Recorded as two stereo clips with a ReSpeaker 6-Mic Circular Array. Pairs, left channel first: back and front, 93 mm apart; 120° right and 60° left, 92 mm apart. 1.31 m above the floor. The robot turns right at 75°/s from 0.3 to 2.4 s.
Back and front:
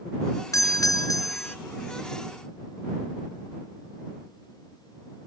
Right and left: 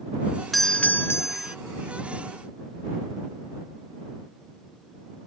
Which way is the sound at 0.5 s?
150° left.